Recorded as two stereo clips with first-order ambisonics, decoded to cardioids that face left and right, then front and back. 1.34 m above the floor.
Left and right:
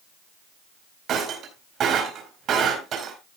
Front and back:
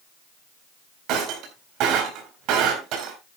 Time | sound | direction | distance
1.1 | breaking glass | 145° right | 4 m